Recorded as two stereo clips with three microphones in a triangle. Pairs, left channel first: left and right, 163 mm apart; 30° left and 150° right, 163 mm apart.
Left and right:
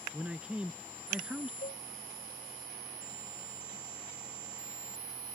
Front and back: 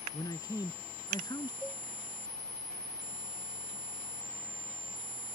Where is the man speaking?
10° right.